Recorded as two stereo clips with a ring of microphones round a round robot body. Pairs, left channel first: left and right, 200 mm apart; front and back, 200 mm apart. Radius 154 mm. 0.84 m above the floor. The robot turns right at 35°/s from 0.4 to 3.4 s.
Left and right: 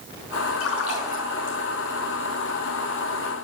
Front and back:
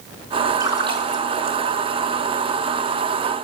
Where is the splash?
105° left, 6 m; by 1.6 s 140° left, 6 m.